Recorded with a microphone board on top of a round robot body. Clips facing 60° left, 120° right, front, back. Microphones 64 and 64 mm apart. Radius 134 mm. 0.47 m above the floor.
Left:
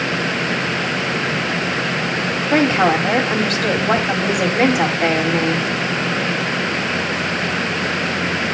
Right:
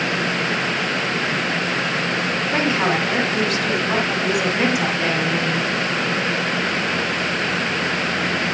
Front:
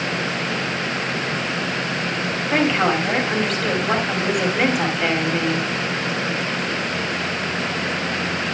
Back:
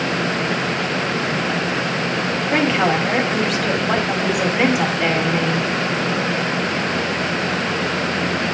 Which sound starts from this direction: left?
A woman speaking, at 2.5 s.